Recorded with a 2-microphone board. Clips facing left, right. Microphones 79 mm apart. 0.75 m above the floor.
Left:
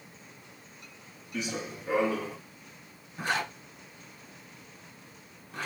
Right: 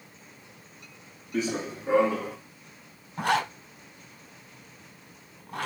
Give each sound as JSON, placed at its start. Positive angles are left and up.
{"t": 1.3, "sound": "running footsteps", "side_deg": -35, "distance_m": 2.5}
{"t": 3.2, "sound": "a zipper", "side_deg": -70, "distance_m": 2.5}